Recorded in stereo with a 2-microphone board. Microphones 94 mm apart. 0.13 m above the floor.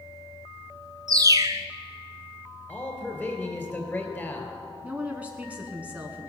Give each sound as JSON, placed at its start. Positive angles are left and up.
{"t": 1.1, "sound": "a bird", "side_deg": -40, "distance_m": 0.5}
{"t": 2.7, "sound": "a man speaking", "side_deg": 20, "distance_m": 2.5}
{"t": 4.8, "sound": "a woman speaking", "side_deg": -15, "distance_m": 1.0}